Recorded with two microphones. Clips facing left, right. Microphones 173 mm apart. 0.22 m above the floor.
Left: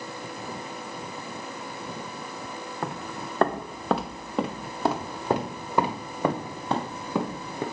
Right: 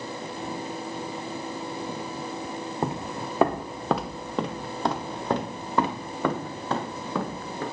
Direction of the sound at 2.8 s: 25° right (ahead or behind).